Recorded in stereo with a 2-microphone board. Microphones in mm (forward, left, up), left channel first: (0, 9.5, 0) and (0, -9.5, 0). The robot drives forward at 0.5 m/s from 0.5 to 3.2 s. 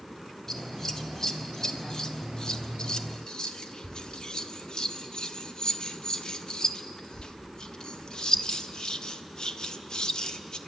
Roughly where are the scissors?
Left.